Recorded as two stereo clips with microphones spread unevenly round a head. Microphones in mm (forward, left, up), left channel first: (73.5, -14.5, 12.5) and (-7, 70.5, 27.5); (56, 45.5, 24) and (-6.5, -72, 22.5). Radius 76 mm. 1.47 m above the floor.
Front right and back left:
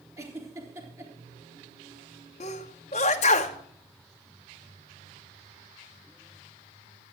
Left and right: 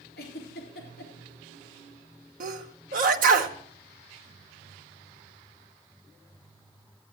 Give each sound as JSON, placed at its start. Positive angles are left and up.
{"t": 0.2, "sound": "a giggle", "azimuth_deg": 75, "distance_m": 3.5}
{"t": 2.4, "sound": "a sneeze", "azimuth_deg": -100, "distance_m": 0.9}